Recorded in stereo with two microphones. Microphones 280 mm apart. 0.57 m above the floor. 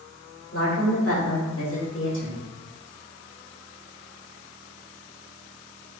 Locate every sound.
0.5 s a woman speaking: 55° left (ahead or behind), 1.7 m; by 2.5 s 40° left (ahead or behind), 1.5 m